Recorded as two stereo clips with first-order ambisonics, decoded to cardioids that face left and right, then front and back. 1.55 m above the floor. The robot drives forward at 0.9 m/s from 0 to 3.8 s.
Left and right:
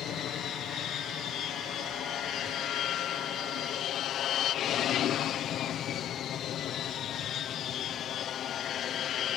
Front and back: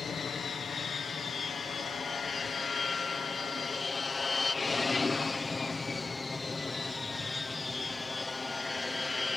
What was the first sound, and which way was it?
An aircraft, 65° left.